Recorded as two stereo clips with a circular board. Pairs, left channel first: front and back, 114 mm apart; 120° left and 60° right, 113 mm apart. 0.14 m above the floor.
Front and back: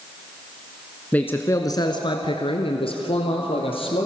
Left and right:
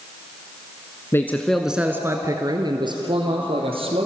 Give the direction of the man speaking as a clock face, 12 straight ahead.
10 o'clock.